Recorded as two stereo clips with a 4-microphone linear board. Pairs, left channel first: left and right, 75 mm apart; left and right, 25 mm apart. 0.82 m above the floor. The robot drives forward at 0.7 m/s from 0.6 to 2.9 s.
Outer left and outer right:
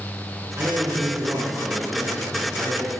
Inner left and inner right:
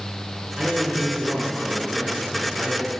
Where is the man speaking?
30° right (ahead or behind), 9 m; by 2.9 s 25° right (ahead or behind), 10 m.